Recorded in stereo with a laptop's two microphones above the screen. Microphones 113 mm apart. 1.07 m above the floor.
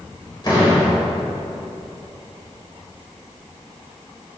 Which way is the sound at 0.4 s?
40° left (ahead or behind).